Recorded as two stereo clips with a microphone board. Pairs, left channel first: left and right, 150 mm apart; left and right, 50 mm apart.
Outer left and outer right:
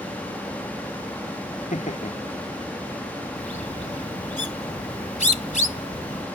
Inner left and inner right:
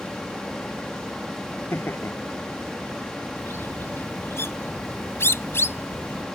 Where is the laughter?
55° left (ahead or behind).